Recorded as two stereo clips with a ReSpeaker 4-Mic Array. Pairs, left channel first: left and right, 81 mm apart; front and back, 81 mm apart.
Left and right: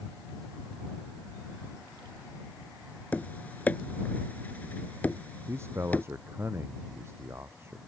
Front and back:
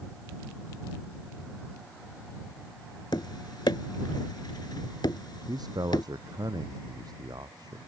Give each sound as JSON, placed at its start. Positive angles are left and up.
{"t": 3.1, "sound": "tapping", "azimuth_deg": 20}
{"t": 5.5, "sound": "a man speaking", "azimuth_deg": -150}